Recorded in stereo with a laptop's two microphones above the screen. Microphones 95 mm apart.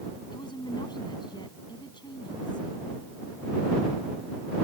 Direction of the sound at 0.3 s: 55° left (ahead or behind).